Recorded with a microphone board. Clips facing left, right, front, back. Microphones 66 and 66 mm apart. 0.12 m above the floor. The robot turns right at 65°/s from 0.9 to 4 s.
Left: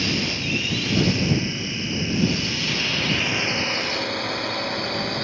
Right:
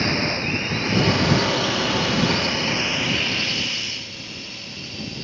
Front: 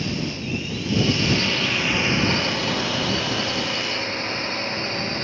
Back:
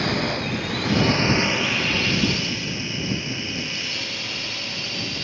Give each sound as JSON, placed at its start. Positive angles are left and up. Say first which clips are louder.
{"t": 0.0, "sound": "a drone", "louder": "right 3 dB, back 4 dB", "azimuth_deg": -145}